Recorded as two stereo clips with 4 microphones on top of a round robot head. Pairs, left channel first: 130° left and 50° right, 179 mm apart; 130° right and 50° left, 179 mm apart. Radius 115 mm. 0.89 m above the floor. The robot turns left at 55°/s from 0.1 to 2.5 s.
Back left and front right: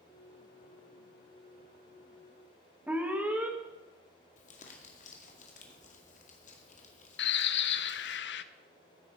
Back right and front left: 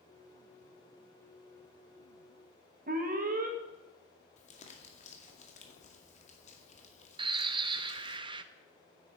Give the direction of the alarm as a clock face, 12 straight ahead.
11 o'clock.